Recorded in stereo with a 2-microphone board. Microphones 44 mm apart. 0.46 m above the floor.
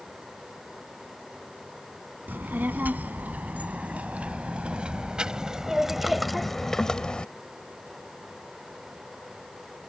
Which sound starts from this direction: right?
A child speaking, at 2.3 s.